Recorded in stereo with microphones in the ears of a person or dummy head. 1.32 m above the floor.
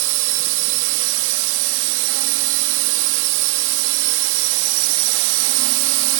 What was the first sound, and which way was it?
A drone, 75° right (ahead or behind).